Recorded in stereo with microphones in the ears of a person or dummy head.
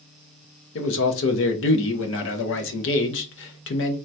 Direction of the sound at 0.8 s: 55° left (ahead or behind).